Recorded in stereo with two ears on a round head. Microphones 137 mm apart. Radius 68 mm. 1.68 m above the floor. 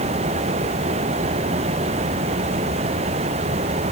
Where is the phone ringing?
I don't hear a phone ringing.